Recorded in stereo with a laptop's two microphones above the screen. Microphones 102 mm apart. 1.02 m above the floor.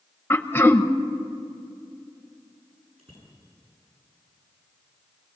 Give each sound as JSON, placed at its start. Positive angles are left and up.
{"t": 0.3, "sound": "throat clearing", "side_deg": 20, "distance_m": 0.7}
{"t": 3.0, "sound": "a bicycle bell", "side_deg": -80, "distance_m": 9.0}